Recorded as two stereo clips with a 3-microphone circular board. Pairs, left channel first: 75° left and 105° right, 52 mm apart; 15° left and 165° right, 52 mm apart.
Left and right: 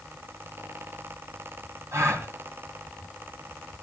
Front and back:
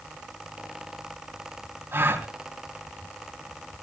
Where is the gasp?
125° right, 3 m.